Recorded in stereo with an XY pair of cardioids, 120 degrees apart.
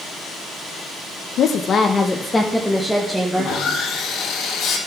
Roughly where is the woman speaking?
Ahead left.